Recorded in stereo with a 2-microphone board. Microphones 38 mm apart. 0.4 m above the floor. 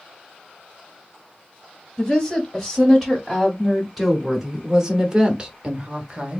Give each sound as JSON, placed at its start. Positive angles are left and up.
{"t": 2.0, "sound": "a woman speaking", "side_deg": 5, "distance_m": 2.0}